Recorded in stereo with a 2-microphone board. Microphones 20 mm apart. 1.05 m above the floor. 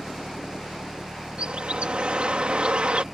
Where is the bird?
60° right (ahead or behind).